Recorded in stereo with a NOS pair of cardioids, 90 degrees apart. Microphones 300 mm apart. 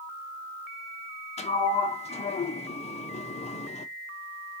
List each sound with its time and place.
1.4 s a sliding door: 20° left, 0.6 m